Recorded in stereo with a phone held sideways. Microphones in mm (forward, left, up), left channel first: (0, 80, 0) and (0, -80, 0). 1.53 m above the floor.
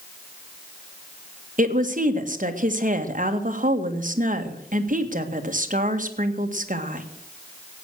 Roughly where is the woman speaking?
Right.